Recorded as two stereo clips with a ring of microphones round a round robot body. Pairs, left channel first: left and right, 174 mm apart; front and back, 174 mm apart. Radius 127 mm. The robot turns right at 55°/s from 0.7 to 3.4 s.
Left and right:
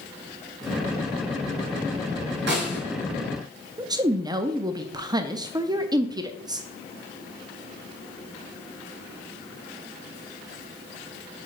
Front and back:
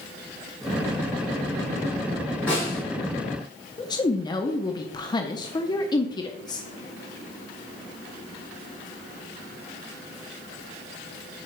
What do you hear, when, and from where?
2.5 s a snare drum: 85° right, 3.5 m; by 2.8 s 65° right, 3.5 m
3.8 s a woman speaking: 45° right, 0.6 m